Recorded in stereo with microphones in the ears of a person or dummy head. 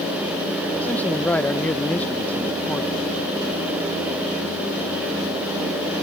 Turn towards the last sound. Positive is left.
turn(degrees=10)  # may be behind; listen again after turning